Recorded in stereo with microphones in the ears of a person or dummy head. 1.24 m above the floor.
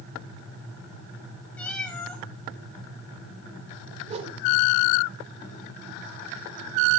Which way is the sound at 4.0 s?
35° right (ahead or behind).